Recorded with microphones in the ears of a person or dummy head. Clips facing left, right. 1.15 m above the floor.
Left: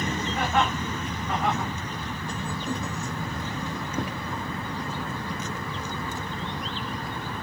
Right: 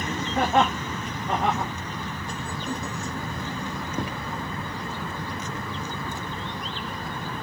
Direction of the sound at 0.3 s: 35° right (ahead or behind).